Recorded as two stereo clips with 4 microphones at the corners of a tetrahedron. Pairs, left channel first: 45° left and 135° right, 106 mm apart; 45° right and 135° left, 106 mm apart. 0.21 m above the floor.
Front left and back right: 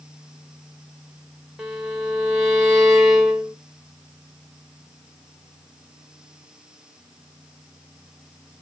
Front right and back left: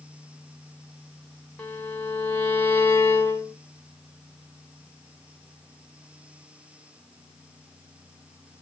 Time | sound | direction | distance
1.6 | a violin | 65° right | 0.8 m